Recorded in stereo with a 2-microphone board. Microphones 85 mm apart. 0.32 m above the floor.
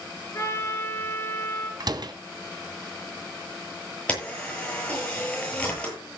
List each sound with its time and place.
0.3 s a trumpet: 30° left (ahead or behind), 4.5 m
1.8 s a door slam: 55° right (ahead or behind), 2.0 m
4.1 s a camera shutter: 15° left (ahead or behind), 9.5 m